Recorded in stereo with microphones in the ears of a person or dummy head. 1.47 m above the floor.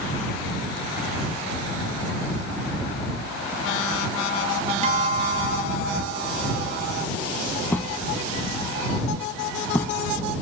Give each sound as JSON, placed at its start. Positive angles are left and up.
{"t": 4.8, "sound": "a guitar", "side_deg": -35}
{"t": 7.7, "sound": "a thud", "side_deg": 15}